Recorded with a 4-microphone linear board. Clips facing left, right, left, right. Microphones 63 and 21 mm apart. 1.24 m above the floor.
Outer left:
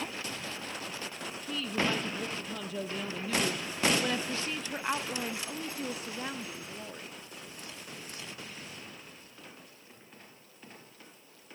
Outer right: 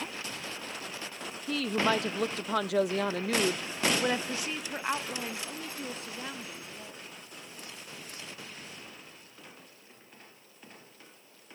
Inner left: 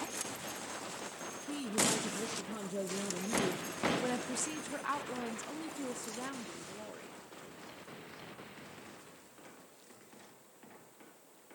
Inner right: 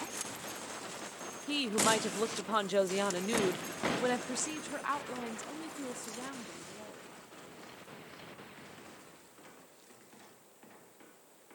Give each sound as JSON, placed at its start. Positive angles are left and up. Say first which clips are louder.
{"t": 1.5, "sound": "a woman speaking", "louder": "outer right 4 dB, inner right 4 dB", "side_deg": -70, "distance_m": 1.3}